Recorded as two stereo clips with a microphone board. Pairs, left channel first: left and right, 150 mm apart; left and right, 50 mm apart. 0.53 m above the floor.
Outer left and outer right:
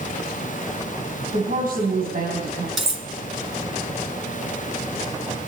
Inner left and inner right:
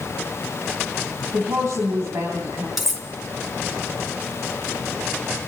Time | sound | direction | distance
1.3 | a woman speaking | 75° right (ahead or behind) | 4 m
2.8 | cutlery clinking | centre (ahead or behind) | 3.5 m